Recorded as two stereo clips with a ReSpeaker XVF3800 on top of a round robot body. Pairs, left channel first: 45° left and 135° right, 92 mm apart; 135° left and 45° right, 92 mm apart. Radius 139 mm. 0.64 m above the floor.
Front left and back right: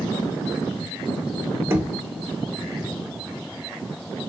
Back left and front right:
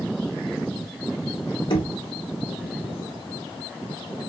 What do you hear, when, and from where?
1.7 s knocking: 165° left, 1.1 m